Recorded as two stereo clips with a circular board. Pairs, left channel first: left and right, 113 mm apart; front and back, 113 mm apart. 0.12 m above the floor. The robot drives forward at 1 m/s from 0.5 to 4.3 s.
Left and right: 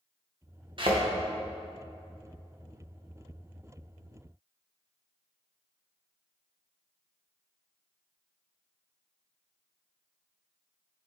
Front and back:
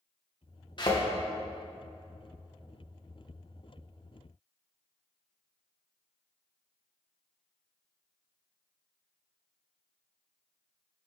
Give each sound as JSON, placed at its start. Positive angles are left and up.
{"t": 0.8, "sound": "a thud", "azimuth_deg": -45, "distance_m": 2.5}